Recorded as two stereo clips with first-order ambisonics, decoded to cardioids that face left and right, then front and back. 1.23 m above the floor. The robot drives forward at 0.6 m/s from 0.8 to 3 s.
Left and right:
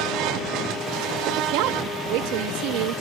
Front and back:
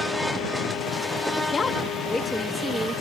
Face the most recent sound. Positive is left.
turn(degrees=-105)